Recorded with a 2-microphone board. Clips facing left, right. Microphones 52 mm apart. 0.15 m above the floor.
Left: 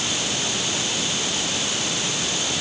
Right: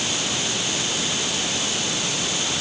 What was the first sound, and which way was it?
Only background noise.